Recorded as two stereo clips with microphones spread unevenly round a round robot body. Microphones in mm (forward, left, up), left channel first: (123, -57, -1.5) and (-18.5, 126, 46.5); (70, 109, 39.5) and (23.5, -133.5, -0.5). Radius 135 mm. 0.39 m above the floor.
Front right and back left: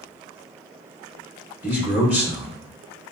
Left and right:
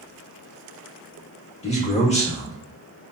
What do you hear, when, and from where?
1.6 s a man speaking: 30° left, 0.9 m